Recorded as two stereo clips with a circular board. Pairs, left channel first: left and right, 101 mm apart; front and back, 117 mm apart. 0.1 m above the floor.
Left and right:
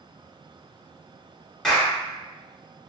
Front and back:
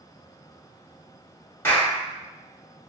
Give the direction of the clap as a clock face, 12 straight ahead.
12 o'clock.